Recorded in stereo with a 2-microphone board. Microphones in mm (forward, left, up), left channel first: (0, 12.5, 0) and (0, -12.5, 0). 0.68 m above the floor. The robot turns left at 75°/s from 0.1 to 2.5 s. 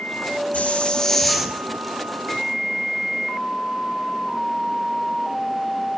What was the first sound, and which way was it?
A hiss, 55° left.